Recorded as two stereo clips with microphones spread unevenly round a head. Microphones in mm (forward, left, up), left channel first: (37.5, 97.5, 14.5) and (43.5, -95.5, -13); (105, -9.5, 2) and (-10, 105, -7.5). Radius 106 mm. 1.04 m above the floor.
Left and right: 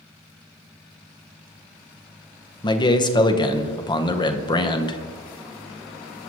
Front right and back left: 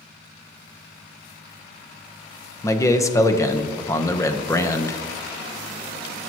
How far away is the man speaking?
About 0.8 m.